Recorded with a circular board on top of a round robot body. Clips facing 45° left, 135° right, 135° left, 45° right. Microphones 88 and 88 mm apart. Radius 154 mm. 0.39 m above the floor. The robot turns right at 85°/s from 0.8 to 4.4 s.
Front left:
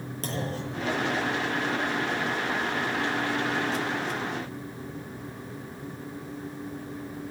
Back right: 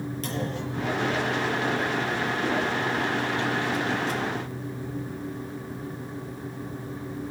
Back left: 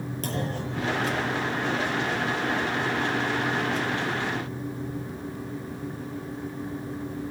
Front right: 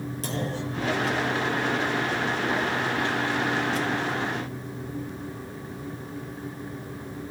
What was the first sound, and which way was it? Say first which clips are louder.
A clunk: front left 1 dB, even; 95° left.